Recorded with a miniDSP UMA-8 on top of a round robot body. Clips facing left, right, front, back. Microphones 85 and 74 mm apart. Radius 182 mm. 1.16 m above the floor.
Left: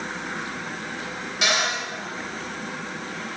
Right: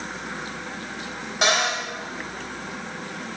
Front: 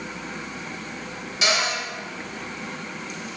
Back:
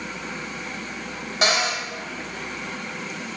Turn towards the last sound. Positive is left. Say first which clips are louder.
# right 2 dB, back 1 dB
turn(degrees=-140)